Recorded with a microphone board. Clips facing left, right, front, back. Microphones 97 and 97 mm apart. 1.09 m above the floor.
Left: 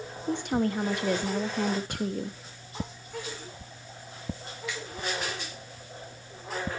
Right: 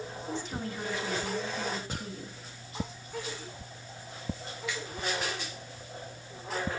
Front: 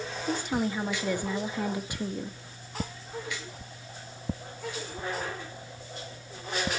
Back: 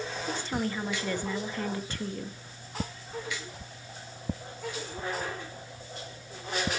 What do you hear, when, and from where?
0.3 s a woman speaking: 75° left, 1.2 m